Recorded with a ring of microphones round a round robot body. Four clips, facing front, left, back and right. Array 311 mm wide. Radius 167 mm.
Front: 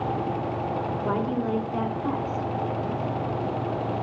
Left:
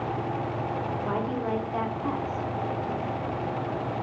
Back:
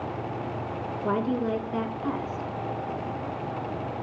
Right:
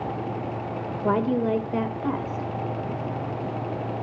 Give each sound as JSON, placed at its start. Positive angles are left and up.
{"t": 1.0, "sound": "a woman speaking", "azimuth_deg": -95, "distance_m": 2.0}